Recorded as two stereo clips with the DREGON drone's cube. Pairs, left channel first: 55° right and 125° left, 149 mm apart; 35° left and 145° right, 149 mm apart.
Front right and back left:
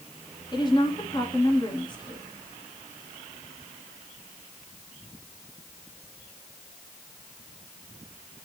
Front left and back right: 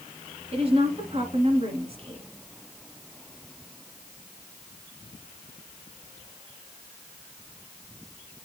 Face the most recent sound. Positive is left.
turn(degrees=-110)